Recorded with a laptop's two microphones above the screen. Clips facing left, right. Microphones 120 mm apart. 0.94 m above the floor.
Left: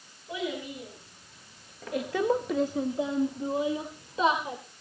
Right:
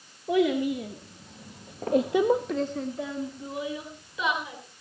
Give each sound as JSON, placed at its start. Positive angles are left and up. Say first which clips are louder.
{"t": 0.3, "sound": "a child speaking", "louder": "right 11 dB", "side_deg": -70, "distance_m": 2.0}